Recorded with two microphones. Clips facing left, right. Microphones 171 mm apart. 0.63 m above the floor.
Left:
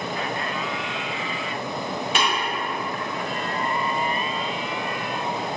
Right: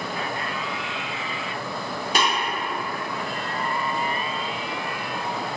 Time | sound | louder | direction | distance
2.1 | tapping | right 2 dB | 40° right (ahead or behind) | 1.2 m